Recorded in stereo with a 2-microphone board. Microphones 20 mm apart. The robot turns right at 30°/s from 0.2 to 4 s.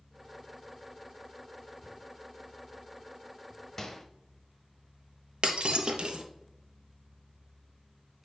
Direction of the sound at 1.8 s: 35° left (ahead or behind).